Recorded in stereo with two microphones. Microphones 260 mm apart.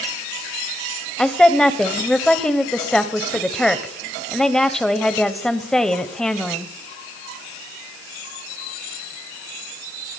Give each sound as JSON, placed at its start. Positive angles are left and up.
{"t": 1.2, "sound": "a woman speaking", "side_deg": 0, "distance_m": 0.9}